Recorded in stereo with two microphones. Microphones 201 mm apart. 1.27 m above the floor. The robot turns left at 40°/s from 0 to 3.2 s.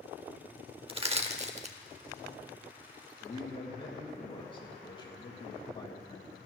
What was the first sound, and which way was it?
Crushing, 25° right (ahead or behind).